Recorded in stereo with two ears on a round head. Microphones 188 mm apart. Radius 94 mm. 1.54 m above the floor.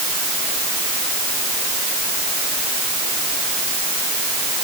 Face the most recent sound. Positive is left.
No sound to turn to.